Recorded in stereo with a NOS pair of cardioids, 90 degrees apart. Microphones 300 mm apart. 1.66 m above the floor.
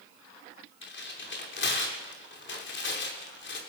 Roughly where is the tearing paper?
Ahead left.